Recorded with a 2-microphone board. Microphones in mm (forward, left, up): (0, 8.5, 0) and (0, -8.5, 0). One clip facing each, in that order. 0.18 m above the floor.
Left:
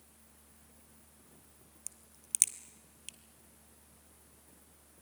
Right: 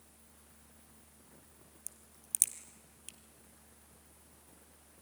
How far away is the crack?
About 1.3 m.